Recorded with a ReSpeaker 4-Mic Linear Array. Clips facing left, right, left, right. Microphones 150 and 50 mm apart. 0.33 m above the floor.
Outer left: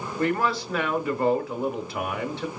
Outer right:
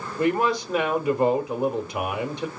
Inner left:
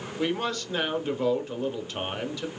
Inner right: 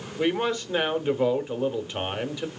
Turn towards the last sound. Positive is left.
turn(degrees=-20)  # may be behind; listen again after turning